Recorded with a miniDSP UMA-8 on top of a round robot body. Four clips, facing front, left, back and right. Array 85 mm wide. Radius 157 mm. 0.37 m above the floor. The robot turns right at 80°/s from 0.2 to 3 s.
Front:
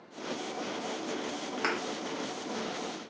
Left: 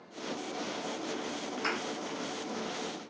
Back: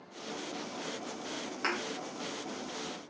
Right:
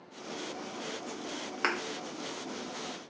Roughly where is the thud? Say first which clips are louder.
Right 3 dB, front 2 dB; right.